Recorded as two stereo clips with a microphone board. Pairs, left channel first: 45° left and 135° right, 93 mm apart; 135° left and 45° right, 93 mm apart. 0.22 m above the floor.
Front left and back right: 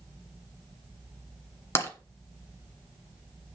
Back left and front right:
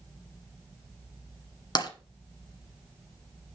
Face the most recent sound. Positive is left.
turn(degrees=100)